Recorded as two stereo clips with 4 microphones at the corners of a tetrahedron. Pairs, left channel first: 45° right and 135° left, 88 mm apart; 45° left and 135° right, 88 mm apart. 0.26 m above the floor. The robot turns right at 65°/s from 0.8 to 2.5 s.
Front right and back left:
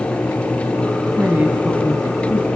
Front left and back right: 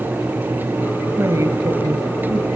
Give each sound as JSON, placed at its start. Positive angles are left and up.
{"t": 1.2, "sound": "a woman speaking", "azimuth_deg": 180, "distance_m": 1.7}